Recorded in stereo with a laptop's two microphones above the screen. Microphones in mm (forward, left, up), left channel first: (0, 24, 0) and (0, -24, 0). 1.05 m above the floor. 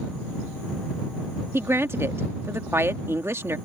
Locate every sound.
1.5 s a woman speaking: 60° right (ahead or behind)